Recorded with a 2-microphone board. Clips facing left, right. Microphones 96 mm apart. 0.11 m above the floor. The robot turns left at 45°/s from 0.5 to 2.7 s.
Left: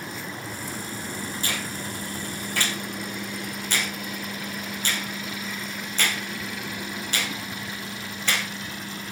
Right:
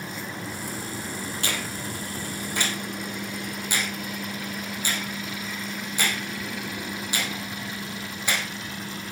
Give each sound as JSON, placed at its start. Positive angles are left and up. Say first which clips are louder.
{"t": 1.4, "sound": "a finger snap", "louder": "even", "side_deg": -65, "distance_m": 5.5}